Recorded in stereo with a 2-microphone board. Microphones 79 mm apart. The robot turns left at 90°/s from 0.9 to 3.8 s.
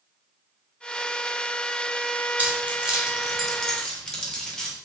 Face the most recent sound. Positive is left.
turn(degrees=10)  # may be behind; listen again after turning